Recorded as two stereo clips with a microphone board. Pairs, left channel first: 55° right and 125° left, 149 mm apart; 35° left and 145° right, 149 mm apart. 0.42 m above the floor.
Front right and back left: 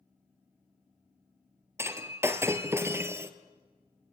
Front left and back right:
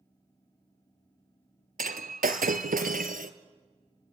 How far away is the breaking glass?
About 1.3 m.